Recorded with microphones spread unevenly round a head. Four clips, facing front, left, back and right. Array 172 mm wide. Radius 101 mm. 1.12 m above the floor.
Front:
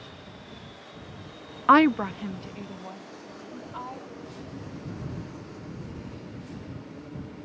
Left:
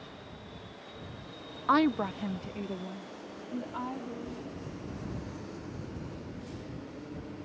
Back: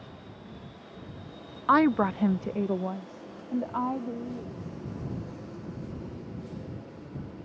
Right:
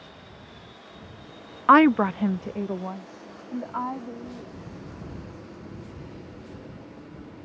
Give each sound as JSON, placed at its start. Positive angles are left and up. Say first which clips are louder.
{"t": 1.7, "sound": "a woman speaking", "louder": "right 10 dB, front 3 dB", "azimuth_deg": -45}